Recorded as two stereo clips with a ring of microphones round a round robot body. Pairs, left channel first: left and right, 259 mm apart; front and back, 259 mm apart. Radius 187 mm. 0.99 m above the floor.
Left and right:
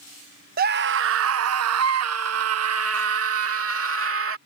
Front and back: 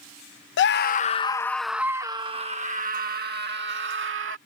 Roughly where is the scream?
Ahead right.